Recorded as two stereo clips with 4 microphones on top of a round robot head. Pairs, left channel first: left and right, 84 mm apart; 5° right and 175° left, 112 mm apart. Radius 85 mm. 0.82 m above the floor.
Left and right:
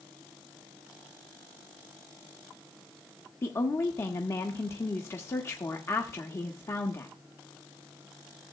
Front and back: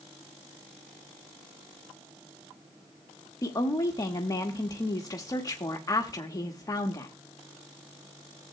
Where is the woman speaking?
40° left, 1.1 m.